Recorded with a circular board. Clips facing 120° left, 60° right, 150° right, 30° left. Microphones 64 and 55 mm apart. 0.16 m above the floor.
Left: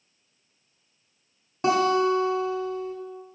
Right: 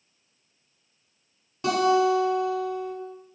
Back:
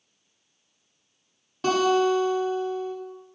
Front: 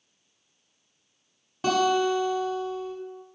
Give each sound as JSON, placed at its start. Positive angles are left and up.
{"t": 1.6, "sound": "a guitar", "azimuth_deg": 115, "distance_m": 1.3}